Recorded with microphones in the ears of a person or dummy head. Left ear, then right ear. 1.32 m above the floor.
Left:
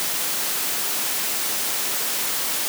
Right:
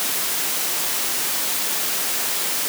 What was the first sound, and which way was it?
Only background noise.